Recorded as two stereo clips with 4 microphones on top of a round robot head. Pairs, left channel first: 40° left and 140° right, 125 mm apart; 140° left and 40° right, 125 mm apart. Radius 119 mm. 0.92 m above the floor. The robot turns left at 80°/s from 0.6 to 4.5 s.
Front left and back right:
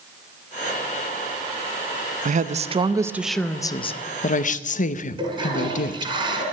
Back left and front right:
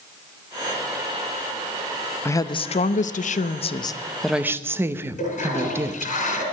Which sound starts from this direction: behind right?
A woman speaking, at 2.2 s.